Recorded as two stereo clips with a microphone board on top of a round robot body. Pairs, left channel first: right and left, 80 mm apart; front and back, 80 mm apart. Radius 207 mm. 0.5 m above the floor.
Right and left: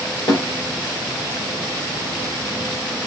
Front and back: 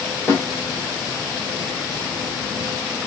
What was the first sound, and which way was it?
A snare drum, 65° right.